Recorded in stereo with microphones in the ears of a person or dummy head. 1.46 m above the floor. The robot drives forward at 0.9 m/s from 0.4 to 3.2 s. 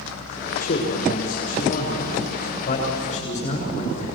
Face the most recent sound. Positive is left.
turn(degrees=35)  # may be behind; listen again after turning